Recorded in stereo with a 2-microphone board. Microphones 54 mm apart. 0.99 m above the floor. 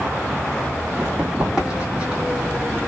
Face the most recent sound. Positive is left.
turn(degrees=-25)  # may be behind; listen again after turning